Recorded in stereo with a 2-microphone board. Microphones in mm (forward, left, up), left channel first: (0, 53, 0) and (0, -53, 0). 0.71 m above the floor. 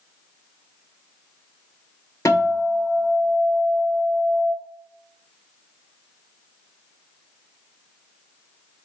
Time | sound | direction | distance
2.2 | a guitar | 30° left (ahead or behind) | 1.2 m